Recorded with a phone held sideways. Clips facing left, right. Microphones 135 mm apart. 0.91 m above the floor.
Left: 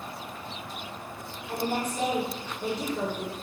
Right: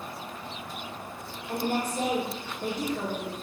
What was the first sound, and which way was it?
A woman speaking, 50° right (ahead or behind).